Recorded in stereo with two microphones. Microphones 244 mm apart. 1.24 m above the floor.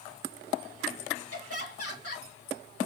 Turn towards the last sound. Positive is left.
turn(degrees=65)  # may be behind; listen again after turning